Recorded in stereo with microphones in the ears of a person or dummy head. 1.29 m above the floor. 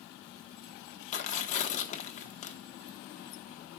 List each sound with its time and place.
1.1 s tearing paper: 40° left (ahead or behind), 1.0 m